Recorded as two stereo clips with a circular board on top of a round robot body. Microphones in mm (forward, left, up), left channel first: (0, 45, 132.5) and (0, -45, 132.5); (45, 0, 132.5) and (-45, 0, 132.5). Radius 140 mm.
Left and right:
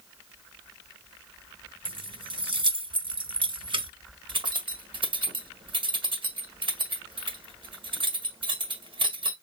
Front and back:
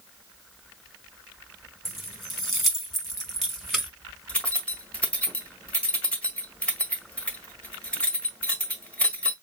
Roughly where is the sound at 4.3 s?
Right.